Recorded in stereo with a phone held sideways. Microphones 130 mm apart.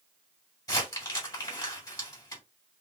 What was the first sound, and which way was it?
Crumpling, 30° left (ahead or behind).